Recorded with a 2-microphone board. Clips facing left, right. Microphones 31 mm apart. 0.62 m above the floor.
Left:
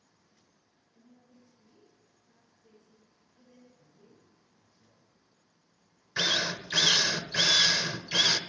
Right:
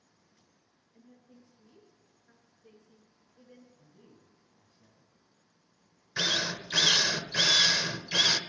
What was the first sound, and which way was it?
A woman speaking, 50° right (ahead or behind).